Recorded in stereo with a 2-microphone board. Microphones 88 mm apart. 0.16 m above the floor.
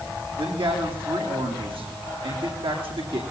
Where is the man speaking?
80° right, 6 m.